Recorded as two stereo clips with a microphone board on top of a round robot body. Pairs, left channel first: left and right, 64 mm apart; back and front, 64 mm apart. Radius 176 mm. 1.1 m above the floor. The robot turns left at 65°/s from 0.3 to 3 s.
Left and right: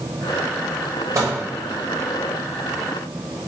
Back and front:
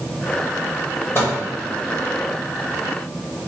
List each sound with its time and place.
1.1 s a microwave: 130° right, 0.8 m; by 1.4 s 140° right, 0.8 m